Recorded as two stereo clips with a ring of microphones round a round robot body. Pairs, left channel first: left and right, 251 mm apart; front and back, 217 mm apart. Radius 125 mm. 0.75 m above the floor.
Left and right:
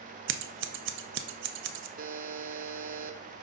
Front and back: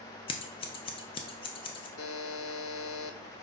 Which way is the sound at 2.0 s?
35° right.